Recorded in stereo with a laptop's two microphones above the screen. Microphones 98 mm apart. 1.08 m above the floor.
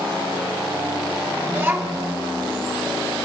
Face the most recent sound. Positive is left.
turn(degrees=-25)  # may be behind; listen again after turning